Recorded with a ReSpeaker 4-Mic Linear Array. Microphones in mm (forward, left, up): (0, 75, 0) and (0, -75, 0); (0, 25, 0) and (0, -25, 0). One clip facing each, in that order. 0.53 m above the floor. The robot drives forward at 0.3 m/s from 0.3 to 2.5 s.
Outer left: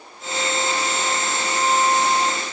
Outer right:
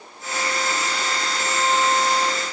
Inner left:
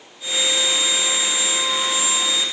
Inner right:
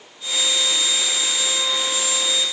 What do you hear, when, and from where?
Only background noise.